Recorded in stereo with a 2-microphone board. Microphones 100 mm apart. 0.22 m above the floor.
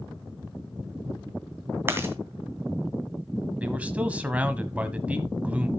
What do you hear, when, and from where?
1.9 s chewing: 25° right (ahead or behind), 2 m
3.6 s a man speaking: 15° right (ahead or behind), 1.3 m